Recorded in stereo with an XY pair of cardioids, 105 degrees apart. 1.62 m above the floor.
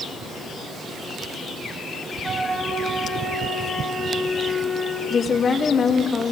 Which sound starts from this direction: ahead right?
A flute, at 2.2 s.